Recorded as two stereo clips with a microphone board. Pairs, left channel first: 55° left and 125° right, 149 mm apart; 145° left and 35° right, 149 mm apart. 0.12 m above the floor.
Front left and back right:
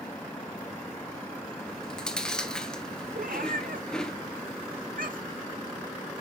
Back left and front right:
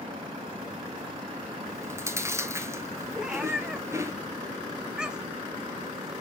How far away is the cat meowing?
About 0.7 m.